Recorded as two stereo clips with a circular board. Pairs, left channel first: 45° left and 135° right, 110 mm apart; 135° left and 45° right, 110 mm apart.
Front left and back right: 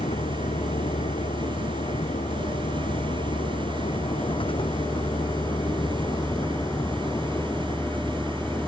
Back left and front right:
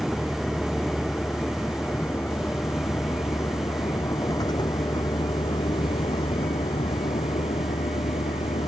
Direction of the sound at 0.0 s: 50° left.